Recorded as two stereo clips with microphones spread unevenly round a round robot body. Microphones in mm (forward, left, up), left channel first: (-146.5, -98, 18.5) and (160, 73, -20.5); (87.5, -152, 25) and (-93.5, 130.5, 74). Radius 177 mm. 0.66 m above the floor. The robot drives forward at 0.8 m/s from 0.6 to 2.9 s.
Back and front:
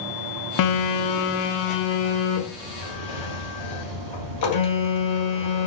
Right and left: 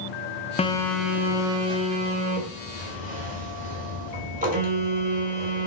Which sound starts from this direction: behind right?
A phone buzzing, at 0.6 s.